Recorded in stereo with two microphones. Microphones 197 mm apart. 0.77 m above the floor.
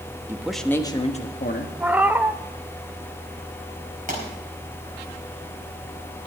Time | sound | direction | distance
0.3 | a man speaking | 10° right (ahead or behind) | 1.1 m
1.8 | a cat meowing | 10° right (ahead or behind) | 0.6 m
4.1 | a pop | 40° right (ahead or behind) | 4.5 m